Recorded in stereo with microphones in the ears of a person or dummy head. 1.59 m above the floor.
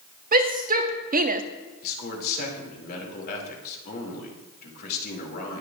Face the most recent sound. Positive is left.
turn(degrees=50)  # may be behind; listen again after turning